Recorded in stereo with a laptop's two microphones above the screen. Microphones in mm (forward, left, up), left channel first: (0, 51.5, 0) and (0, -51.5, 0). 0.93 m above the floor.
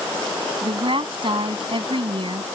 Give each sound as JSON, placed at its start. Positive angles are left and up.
{"t": 0.6, "sound": "a woman speaking", "side_deg": -55}